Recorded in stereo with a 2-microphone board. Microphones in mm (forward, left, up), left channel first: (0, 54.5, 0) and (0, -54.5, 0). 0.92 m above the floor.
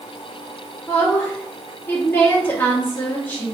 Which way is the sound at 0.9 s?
15° left (ahead or behind).